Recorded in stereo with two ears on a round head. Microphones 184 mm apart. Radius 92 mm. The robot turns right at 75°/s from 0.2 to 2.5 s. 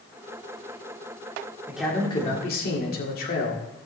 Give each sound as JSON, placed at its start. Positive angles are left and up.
{"t": 1.7, "sound": "a man speaking", "azimuth_deg": -10, "distance_m": 2.5}